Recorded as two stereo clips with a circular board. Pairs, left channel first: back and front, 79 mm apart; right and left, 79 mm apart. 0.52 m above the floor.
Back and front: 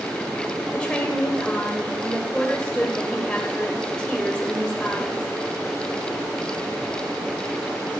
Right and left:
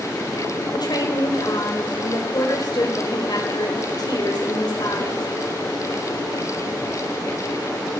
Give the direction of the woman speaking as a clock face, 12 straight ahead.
3 o'clock.